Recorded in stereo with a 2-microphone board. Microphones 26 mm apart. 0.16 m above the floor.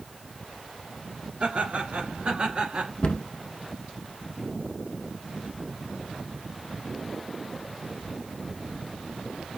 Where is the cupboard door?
45° left (ahead or behind), 0.8 m.